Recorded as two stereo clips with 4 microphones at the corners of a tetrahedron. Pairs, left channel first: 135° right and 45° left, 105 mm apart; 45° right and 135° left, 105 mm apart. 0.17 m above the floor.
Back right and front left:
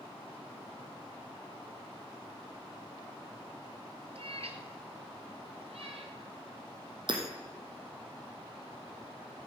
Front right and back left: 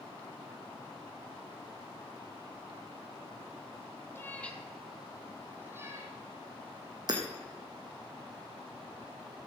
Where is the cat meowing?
20° left, 1.3 m; by 6.2 s 70° left, 2 m.